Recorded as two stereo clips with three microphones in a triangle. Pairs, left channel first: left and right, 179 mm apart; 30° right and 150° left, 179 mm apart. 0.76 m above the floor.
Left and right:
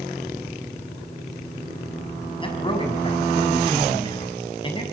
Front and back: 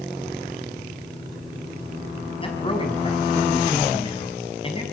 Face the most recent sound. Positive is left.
turn(degrees=30)